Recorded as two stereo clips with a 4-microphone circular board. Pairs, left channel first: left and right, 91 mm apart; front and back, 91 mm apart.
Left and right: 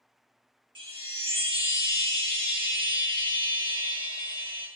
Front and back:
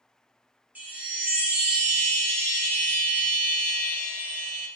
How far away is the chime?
About 0.7 m.